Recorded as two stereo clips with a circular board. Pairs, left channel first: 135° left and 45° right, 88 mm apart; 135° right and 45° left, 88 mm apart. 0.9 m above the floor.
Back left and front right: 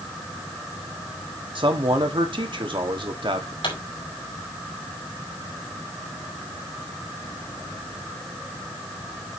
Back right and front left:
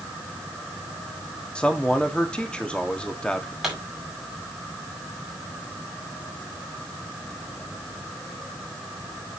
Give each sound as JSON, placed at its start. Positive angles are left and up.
{"t": 1.6, "sound": "a man speaking", "azimuth_deg": -55, "distance_m": 1.6}
{"t": 3.6, "sound": "a pop", "azimuth_deg": 130, "distance_m": 5.0}